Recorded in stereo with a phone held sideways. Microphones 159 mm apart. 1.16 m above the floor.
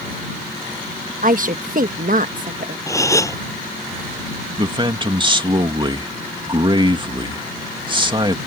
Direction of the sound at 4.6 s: 30° right (ahead or behind).